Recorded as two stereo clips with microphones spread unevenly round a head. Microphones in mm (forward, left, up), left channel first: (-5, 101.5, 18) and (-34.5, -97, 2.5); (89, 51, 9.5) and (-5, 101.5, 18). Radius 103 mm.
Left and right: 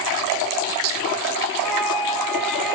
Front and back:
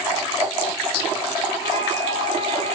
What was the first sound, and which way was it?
A flute, 170° left.